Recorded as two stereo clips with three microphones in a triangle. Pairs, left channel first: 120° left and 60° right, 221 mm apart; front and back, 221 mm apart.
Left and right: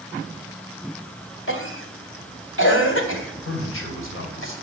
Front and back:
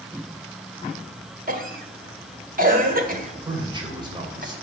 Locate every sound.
1.5 s a cough: 135° left, 2.0 m
3.5 s a man speaking: 110° left, 3 m